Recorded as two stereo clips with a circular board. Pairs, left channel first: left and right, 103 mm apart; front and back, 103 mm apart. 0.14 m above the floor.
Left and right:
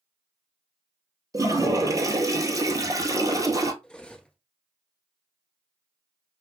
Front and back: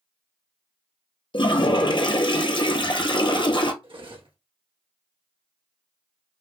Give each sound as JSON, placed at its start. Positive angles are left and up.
{"t": 1.3, "sound": "a toilet flushing", "azimuth_deg": -35, "distance_m": 0.7}
{"t": 3.8, "sound": "cutlery clinking", "azimuth_deg": 170, "distance_m": 1.3}